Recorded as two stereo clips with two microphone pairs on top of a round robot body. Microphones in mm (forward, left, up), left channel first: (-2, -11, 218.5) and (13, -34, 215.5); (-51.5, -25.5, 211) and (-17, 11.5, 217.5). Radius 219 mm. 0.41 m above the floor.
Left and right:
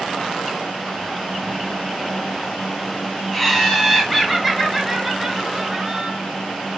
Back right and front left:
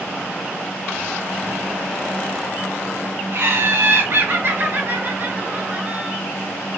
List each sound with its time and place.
3.3 s laughter: 40° left, 2.5 m; by 6.2 s 10° right, 1.7 m